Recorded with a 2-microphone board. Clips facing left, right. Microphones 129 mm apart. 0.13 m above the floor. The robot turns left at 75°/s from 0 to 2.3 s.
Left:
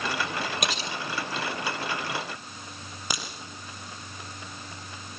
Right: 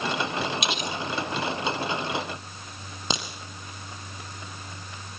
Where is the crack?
25° right (ahead or behind), 4.5 m.